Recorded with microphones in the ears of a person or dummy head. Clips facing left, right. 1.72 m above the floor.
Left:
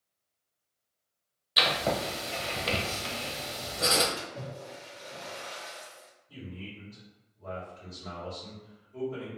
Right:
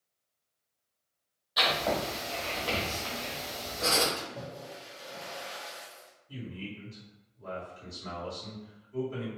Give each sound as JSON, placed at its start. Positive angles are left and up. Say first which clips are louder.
{"t": 1.6, "sound": "writing", "louder": "even", "side_deg": 30, "distance_m": 0.9}
{"t": 4.2, "sound": "a splash", "louder": "even", "side_deg": -20, "distance_m": 1.3}
{"t": 6.3, "sound": "a man speaking", "louder": "right 2 dB", "side_deg": -50, "distance_m": 1.7}